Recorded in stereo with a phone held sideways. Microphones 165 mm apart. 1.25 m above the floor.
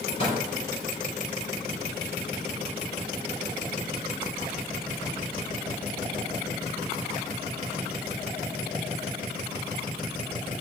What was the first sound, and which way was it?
A microwave, 45° left (ahead or behind).